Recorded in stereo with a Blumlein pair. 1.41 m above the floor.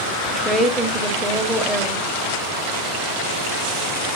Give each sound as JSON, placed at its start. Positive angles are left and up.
{"t": 0.3, "sound": "a woman speaking", "azimuth_deg": -5, "distance_m": 1.5}